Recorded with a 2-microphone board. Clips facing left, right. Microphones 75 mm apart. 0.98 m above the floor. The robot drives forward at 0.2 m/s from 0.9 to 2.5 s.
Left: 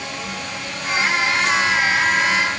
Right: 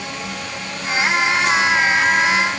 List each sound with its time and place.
Only background noise.